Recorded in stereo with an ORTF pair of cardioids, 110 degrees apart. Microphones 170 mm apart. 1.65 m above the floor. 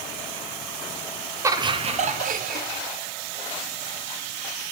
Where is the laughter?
15° right, 1.0 m; by 2.8 s 60° right, 1.6 m.